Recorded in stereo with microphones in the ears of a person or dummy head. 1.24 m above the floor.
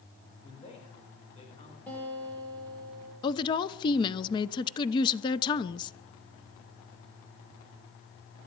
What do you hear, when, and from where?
0.4 s a man speaking: 35° left (ahead or behind), 4.5 m
1.9 s a guitar: 10° left (ahead or behind), 6.5 m
3.2 s a woman speaking: 20° left (ahead or behind), 0.7 m